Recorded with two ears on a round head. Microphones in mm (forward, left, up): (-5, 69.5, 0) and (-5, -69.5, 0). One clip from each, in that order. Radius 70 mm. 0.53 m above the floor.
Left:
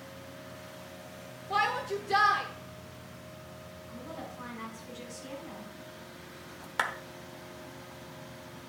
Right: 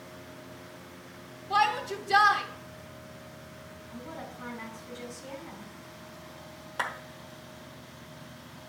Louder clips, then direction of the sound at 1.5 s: Right 3 dB; 10° right (ahead or behind).